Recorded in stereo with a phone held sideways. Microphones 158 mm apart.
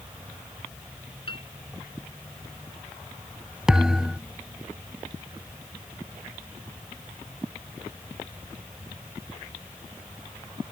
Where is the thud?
5° right (ahead or behind).